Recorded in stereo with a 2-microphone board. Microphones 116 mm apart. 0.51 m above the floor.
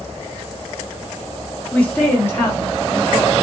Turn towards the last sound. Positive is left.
turn(degrees=35)  # may be behind; listen again after turning